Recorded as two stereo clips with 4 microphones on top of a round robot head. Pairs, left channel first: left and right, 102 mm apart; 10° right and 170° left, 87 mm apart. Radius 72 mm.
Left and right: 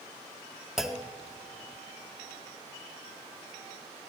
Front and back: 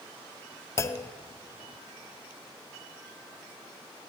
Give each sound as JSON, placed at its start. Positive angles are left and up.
{"t": 0.8, "sound": "a clunk", "azimuth_deg": -10, "distance_m": 0.5}